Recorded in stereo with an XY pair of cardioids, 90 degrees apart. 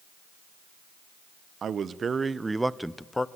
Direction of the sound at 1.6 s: 60° right.